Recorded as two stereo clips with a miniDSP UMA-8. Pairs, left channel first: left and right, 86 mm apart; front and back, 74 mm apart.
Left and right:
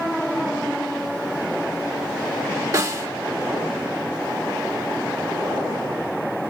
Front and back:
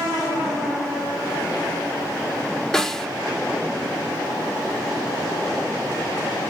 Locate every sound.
2.7 s a snare drum: 80° right, 1.3 m